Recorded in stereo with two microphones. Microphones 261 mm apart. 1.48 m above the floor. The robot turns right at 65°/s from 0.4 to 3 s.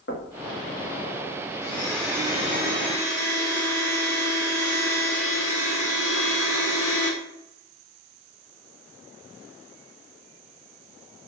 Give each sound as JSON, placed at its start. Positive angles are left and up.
{"t": 0.1, "sound": "knocking", "side_deg": 50, "distance_m": 1.2}
{"t": 1.6, "sound": "a blender", "azimuth_deg": 150, "distance_m": 2.5}